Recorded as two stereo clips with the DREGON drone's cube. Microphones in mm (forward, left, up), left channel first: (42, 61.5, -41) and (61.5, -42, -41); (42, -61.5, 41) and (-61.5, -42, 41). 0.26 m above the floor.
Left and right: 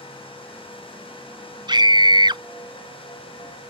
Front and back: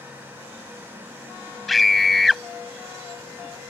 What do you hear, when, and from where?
1.7 s a scream: 100° right